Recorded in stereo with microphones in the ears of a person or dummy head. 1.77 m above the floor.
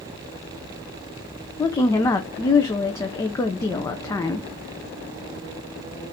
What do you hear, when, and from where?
1.6 s a woman speaking: 15° left (ahead or behind), 0.5 m